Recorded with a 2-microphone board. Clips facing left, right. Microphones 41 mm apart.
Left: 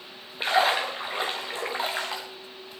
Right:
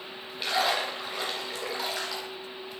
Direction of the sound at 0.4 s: 30° left (ahead or behind).